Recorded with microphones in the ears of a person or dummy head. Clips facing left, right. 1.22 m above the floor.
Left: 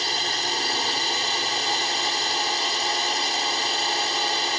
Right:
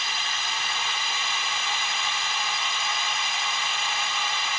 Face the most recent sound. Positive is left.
turn(degrees=25)  # may be behind; listen again after turning